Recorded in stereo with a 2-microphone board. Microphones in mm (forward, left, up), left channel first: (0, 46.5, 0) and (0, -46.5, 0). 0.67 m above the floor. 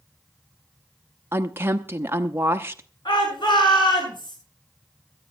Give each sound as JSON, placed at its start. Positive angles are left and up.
{"t": 1.3, "sound": "a woman speaking", "side_deg": -25, "distance_m": 0.7}
{"t": 3.0, "sound": "a shout", "side_deg": 55, "distance_m": 9.5}